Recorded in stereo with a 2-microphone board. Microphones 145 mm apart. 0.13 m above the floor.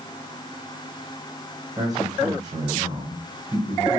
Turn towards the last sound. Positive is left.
turn(degrees=-25)  # may be behind; listen again after turning